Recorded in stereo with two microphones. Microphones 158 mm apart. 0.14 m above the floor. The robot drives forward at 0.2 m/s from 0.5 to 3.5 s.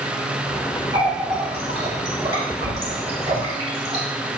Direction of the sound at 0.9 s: 40° right (ahead or behind).